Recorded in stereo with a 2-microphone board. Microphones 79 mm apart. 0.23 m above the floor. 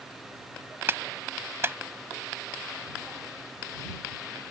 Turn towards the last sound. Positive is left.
turn(degrees=-30)  # may be behind; listen again after turning